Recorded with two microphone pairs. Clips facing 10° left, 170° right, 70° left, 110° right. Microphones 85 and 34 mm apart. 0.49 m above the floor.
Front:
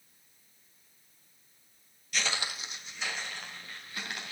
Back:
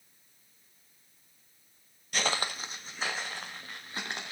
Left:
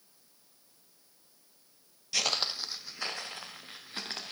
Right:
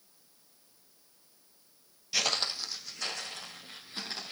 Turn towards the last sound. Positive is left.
turn(degrees=135)